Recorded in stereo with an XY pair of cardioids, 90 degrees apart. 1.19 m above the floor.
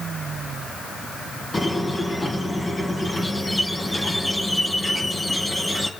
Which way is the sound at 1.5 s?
20° left.